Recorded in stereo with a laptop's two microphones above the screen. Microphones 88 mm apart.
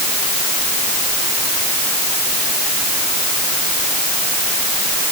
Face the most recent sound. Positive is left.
No sound to turn to.